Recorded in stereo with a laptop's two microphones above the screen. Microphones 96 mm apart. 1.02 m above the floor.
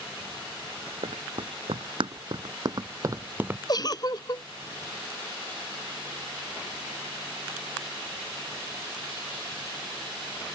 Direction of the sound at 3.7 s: 45° left (ahead or behind).